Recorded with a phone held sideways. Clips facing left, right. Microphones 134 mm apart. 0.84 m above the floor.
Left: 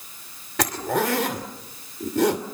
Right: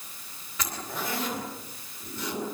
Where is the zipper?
80° left, 2.5 m.